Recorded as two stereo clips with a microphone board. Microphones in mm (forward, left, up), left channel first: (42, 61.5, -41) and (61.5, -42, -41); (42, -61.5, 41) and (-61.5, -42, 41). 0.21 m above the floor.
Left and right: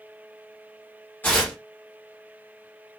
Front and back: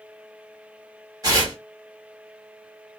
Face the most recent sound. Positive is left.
turn(degrees=160)